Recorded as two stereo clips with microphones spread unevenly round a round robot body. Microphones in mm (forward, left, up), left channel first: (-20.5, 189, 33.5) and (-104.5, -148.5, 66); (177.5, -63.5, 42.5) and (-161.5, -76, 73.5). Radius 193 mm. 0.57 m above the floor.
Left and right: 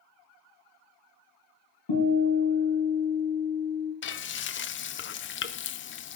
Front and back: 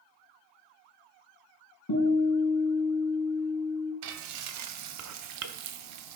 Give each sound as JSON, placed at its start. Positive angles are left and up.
{"t": 1.9, "sound": "a guitar", "azimuth_deg": 55, "distance_m": 4.0}
{"t": 4.0, "sound": "frying", "azimuth_deg": 135, "distance_m": 0.6}